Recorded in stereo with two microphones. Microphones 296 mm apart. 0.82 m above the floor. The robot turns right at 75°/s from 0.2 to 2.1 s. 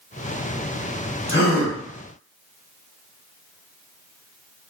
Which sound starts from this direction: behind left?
A gasp, at 1.3 s.